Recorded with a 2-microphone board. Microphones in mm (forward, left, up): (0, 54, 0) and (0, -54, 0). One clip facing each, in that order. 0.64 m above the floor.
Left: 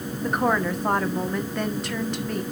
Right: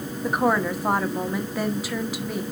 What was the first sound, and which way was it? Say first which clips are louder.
A woman speaking: right 1 dB; 5° right (ahead or behind).